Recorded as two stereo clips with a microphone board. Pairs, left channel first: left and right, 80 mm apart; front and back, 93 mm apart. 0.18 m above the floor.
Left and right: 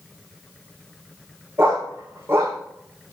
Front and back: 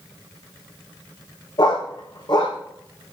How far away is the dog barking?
About 5 m.